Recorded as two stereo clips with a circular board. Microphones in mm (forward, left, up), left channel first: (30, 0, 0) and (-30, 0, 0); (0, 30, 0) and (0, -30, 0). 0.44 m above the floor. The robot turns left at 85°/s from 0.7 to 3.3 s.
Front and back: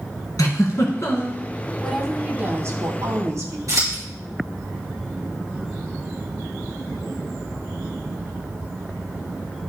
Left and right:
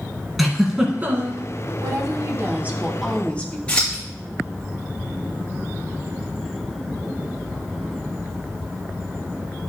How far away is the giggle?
About 2 m.